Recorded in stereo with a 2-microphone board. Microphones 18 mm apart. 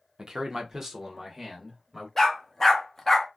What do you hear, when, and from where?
0.2 s a man speaking: 40° right (ahead or behind), 0.7 m; by 2.1 s centre (ahead or behind), 1.8 m
2.2 s a dog barking: 25° left (ahead or behind), 0.8 m